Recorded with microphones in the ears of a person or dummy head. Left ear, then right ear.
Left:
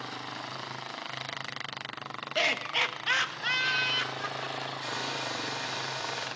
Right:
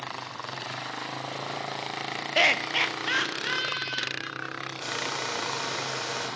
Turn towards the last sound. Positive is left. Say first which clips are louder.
# right 5 dB
turn(degrees=-60)  # may be behind; listen again after turning